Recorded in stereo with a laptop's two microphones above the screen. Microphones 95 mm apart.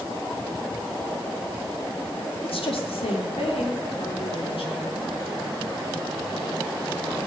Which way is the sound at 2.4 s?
75° left (ahead or behind).